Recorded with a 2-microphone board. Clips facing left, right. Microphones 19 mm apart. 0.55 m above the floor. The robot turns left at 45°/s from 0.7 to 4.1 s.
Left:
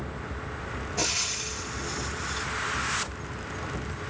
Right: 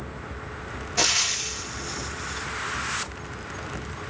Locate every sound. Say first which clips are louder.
1.0 s frying: right 6 dB; 60° right (ahead or behind), 0.5 m; by 2.5 s 5° left (ahead or behind), 0.5 m